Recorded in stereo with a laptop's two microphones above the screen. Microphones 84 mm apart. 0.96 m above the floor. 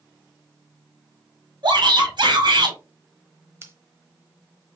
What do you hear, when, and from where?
1.6 s a shout: 65° right (ahead or behind), 2 m
3.6 s scissors: 30° right (ahead or behind), 1.0 m